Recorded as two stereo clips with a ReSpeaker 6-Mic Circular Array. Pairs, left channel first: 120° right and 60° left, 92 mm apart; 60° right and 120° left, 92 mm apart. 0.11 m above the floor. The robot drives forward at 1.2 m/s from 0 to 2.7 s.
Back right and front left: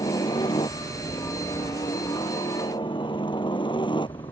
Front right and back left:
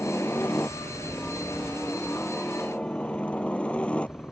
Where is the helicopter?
125° right; by 4.3 s 135° right.